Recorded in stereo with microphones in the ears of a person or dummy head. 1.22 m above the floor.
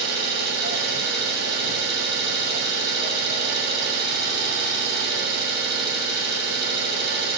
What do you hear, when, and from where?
0.0 s an engine running: 65° right (ahead or behind), 2.5 m